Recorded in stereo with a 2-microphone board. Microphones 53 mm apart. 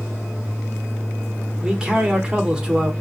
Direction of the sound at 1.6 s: 15° right (ahead or behind).